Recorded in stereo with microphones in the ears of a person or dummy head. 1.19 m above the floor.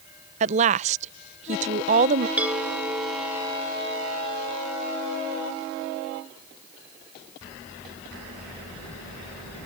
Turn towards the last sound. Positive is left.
turn(degrees=-10)  # may be behind; listen again after turning